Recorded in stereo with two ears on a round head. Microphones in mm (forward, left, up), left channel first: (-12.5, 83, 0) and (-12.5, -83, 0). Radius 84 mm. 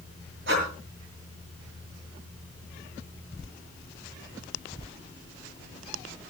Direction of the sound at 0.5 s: 65° right (ahead or behind).